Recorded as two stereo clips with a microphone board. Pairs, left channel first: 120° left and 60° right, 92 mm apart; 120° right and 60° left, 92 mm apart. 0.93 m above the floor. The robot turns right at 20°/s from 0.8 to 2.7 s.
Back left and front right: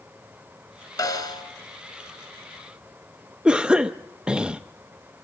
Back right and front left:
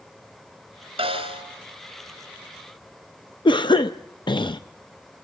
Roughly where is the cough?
Behind right.